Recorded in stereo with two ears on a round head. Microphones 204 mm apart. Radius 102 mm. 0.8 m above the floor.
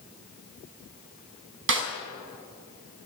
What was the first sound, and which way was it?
A snare drum, 55° right (ahead or behind).